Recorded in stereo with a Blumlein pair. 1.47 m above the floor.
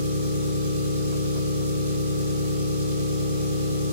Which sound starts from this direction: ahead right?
An engine running, at 0.0 s.